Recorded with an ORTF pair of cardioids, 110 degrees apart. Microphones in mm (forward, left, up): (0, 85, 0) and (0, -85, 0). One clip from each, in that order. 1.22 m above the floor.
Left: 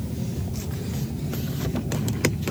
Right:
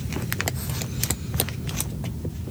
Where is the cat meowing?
No cat meowing in this recording.